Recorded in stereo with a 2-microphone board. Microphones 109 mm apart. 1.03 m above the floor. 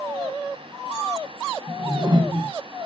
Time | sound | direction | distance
1.7 | a whoosh | 40° right (ahead or behind) | 0.7 m